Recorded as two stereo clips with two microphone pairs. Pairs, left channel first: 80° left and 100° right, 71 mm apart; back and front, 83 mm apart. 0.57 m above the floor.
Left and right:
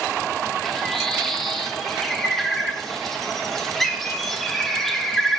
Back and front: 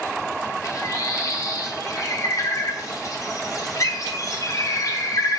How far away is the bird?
About 0.6 m.